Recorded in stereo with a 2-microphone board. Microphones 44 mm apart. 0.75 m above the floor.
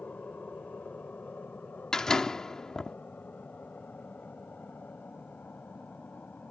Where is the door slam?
15° left (ahead or behind).